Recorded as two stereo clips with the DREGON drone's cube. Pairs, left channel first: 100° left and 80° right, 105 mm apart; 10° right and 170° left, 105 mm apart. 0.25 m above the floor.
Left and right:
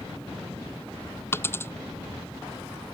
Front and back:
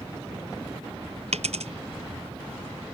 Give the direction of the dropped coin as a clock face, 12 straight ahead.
6 o'clock.